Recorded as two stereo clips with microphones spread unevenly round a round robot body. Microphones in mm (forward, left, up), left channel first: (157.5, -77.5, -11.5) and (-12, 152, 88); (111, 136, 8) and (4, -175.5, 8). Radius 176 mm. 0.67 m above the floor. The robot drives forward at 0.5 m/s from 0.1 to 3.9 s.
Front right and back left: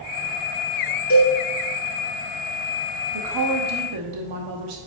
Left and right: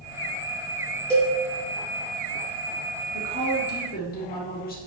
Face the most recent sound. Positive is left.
turn(degrees=130)